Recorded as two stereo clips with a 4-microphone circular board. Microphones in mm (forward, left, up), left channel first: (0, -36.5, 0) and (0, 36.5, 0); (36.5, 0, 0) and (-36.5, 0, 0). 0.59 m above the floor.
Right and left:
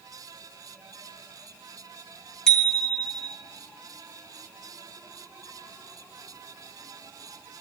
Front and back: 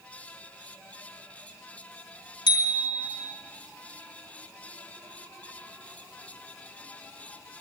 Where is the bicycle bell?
10° right, 4 m.